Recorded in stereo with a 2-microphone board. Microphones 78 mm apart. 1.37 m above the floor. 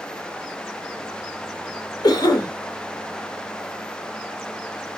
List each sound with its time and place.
2.0 s a cough: 60° left (ahead or behind), 1.1 m